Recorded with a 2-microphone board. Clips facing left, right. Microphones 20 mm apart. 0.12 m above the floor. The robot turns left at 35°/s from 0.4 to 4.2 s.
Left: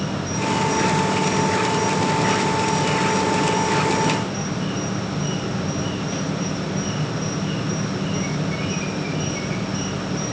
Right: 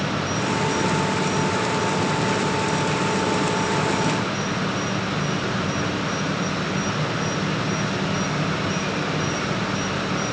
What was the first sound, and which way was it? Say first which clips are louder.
An insect: right 1 dB; 160° left.